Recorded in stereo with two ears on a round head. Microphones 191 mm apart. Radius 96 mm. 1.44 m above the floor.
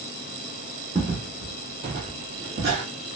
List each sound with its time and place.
0.9 s footsteps: 5° right (ahead or behind), 2 m; by 2.8 s 35° right (ahead or behind), 3.5 m